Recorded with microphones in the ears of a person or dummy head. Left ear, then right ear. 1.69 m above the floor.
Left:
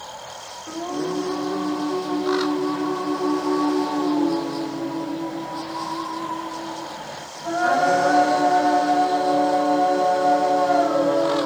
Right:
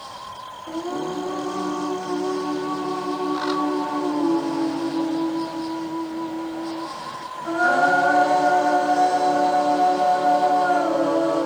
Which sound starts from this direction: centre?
Singing, at 0.7 s.